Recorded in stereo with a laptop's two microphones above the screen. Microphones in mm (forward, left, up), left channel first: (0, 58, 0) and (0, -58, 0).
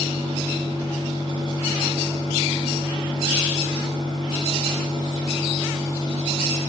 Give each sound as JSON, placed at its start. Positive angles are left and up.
{"t": 0.0, "sound": "a fan", "side_deg": -50, "distance_m": 3.5}